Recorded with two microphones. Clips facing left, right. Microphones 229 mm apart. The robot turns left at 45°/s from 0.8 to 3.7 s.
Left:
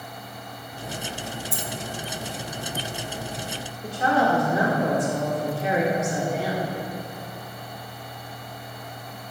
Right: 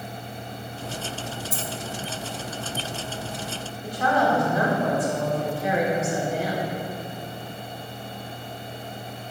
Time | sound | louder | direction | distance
1.5 | a dropped coin | right 1 dB | 45° right (ahead or behind) | 0.8 m
3.8 | a woman speaking | left 1 dB | 25° left (ahead or behind) | 2.0 m